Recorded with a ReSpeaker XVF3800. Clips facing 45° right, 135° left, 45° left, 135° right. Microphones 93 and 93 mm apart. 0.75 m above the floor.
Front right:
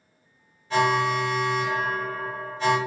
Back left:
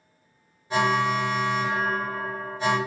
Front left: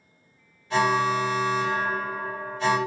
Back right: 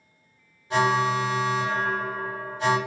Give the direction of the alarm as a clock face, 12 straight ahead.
6 o'clock.